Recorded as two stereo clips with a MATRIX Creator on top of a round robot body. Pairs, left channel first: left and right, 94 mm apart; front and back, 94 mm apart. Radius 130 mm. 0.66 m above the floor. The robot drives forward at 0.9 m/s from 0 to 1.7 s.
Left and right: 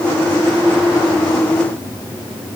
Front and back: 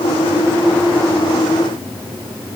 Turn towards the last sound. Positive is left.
No sound to turn to.